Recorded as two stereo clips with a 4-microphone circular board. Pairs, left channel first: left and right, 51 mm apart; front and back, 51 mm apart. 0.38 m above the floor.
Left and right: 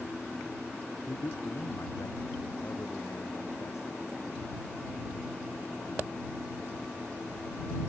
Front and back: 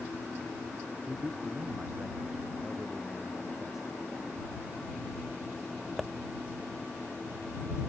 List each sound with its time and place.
1.0 s a man speaking: 105° left; by 4.0 s 95° left